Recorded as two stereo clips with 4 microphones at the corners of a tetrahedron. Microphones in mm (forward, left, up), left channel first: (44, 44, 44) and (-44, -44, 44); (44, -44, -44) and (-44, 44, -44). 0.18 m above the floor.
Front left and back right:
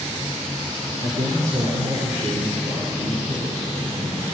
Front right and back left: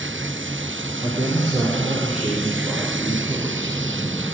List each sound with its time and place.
1.0 s a man speaking: 140° right, 4.5 m; by 4.2 s 155° right, 6 m